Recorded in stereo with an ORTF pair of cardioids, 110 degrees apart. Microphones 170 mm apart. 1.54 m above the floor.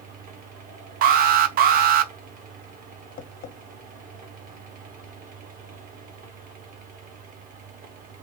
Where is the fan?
55° right, 1.3 m.